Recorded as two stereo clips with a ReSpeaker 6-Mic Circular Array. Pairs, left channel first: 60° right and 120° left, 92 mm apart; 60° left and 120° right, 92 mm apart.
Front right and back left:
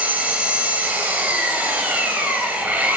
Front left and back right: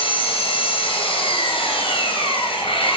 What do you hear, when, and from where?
0.0 s an engine running: 45° left, 3 m